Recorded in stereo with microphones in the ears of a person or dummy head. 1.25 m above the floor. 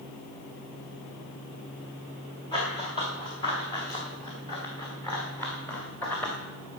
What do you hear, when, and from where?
2.5 s running footsteps: 30° left (ahead or behind), 8 m; by 6.3 s 10° left (ahead or behind), 6 m